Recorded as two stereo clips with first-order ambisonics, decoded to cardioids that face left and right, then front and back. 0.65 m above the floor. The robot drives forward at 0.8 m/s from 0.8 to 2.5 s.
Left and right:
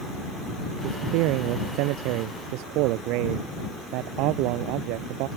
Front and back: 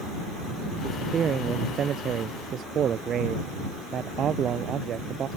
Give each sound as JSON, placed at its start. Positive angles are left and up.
{"t": 0.8, "sound": "a man speaking", "azimuth_deg": -115}